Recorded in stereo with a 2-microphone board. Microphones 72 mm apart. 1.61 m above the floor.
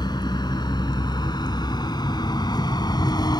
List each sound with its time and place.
0.0 s a vehicle: 80° left; by 3.4 s 75° left (ahead or behind)